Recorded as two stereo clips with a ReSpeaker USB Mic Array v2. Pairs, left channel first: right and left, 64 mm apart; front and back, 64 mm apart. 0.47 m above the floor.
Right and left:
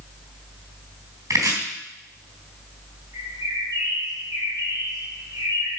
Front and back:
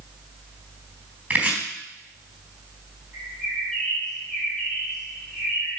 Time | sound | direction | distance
1.3 | chopping | 115° left | 3.5 m
3.1 | a bird | 80° left | 3 m